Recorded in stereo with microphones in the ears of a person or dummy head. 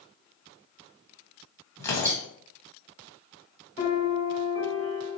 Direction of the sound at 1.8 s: 25° left (ahead or behind).